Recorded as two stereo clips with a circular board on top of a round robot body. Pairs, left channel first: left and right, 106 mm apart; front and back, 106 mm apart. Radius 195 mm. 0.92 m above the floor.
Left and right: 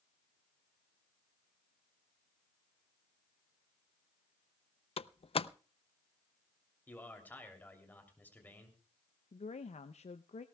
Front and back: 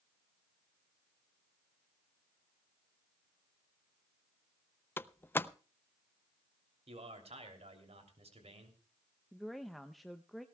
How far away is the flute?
No flute in this recording.